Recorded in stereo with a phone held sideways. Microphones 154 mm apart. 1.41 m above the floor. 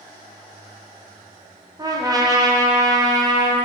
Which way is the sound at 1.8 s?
25° right (ahead or behind).